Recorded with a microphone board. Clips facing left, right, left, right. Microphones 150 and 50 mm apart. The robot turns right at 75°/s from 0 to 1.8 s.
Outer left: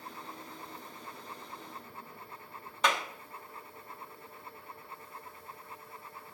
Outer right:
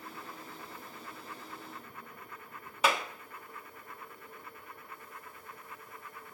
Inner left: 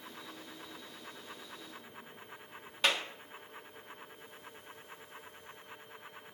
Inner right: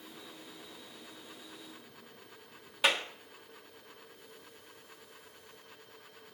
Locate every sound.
2.8 s a clap: 5° right (ahead or behind), 1.2 m